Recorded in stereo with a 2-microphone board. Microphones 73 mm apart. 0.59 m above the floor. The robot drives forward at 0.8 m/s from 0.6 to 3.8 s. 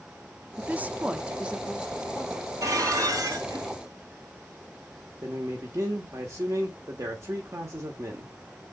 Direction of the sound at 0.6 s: 25° right (ahead or behind).